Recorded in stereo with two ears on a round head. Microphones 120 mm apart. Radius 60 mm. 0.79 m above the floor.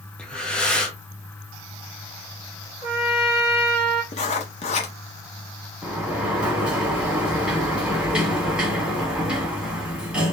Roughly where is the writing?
Left.